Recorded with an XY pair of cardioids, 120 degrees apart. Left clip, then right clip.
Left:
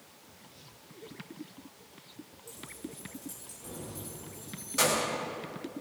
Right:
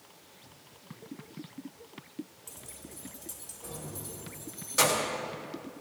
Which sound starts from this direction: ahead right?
Keys jangling, at 2.5 s.